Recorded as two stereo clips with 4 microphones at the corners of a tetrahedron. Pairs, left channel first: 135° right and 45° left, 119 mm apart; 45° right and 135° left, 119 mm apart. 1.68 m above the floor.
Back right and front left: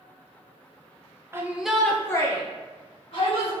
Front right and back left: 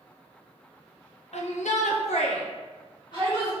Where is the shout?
20° right, 0.7 m; by 3.5 s 100° right, 1.4 m.